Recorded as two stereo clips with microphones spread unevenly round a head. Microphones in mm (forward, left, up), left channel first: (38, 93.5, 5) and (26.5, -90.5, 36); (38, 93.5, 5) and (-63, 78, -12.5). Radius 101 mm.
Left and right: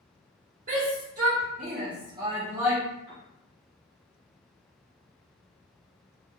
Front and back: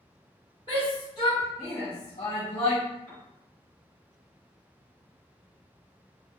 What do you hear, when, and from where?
0.7 s a shout: 55° right, 1.8 m; by 2.8 s 10° right, 0.8 m
3.1 s a piano: 75° left, 1.6 m